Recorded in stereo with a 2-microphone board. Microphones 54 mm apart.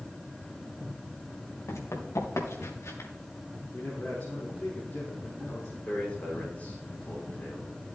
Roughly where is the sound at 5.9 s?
Left.